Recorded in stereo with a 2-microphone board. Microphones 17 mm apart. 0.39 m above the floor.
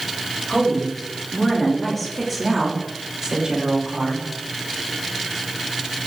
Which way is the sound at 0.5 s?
50° left (ahead or behind).